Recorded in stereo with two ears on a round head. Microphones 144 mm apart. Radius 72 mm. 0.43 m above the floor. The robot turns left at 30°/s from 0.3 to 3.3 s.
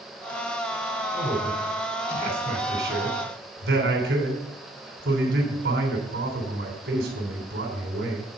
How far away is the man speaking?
About 3.5 m.